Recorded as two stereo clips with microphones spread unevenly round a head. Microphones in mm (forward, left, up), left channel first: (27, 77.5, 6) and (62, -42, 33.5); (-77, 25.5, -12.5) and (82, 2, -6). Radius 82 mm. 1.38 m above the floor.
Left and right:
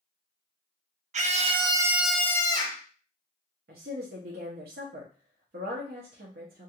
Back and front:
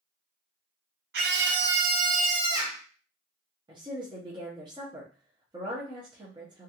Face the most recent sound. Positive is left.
turn(degrees=-75)